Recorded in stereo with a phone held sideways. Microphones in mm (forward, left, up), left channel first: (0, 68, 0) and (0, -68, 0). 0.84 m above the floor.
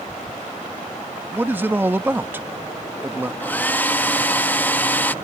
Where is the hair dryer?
15° left (ahead or behind).